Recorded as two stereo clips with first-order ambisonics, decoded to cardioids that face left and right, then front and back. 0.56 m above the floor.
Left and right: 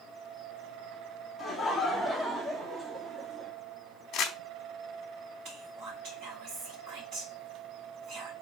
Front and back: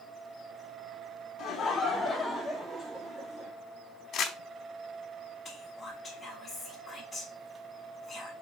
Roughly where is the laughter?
Ahead left.